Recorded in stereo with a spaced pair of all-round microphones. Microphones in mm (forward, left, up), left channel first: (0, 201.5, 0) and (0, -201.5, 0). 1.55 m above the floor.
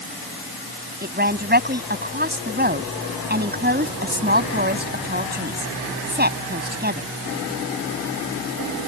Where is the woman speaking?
25° right (ahead or behind).